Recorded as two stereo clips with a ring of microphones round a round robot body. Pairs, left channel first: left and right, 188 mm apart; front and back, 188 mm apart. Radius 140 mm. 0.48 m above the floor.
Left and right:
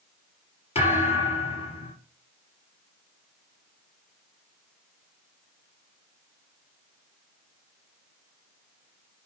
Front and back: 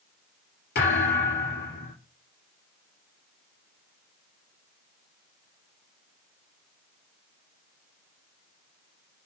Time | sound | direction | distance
0.8 | a thud | 35° left | 4 m